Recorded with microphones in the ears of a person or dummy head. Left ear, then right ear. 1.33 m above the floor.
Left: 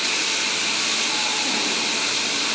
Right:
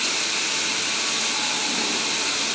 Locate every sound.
Only background noise.